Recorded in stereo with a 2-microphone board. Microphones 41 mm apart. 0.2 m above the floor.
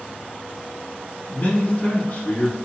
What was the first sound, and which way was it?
A man speaking, 55° left (ahead or behind).